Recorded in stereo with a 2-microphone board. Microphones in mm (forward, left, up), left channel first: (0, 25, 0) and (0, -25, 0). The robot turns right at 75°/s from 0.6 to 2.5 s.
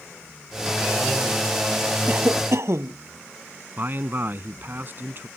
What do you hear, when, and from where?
2.1 s a cough: 150° right; by 3.0 s 115° right
3.8 s a man speaking: 45° right (ahead or behind)